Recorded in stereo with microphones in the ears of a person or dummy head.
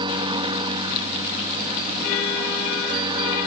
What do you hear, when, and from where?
0.0 s a helicopter: 25° right (ahead or behind)